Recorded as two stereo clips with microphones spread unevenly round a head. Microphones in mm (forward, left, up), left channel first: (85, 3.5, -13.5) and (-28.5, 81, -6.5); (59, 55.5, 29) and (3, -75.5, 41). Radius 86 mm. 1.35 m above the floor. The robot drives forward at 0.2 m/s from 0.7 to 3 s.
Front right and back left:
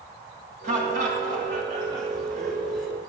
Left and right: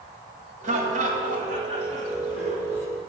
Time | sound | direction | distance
0.6 | laughter | 160° right | 1.8 m